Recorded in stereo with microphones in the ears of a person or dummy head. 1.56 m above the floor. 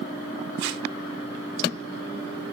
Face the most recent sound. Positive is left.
turn(degrees=-80)